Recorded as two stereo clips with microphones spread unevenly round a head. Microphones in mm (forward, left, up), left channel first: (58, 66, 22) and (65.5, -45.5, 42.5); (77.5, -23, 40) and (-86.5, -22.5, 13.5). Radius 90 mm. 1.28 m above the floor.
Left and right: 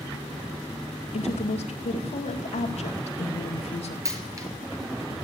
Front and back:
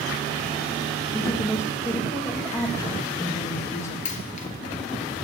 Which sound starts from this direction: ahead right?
A dropped coin, at 4.0 s.